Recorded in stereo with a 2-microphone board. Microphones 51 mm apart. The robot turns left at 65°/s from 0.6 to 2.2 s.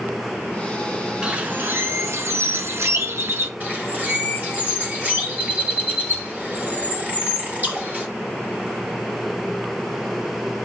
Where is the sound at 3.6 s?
35° right (ahead or behind), 3 m.